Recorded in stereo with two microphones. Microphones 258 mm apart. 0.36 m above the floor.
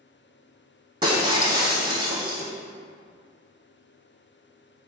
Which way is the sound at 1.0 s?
15° right (ahead or behind).